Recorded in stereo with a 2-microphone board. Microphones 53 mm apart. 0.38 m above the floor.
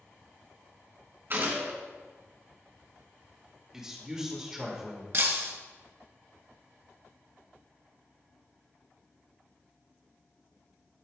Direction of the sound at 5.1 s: 55° right (ahead or behind).